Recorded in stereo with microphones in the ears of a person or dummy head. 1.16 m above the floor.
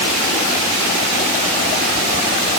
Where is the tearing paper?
No tearing paper in this recording.